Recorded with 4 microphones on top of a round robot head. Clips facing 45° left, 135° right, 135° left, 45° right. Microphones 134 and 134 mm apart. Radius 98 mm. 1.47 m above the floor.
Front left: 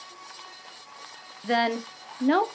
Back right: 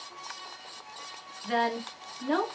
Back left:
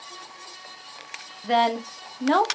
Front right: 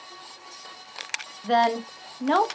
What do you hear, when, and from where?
1.4 s a woman speaking: 45° left, 0.9 m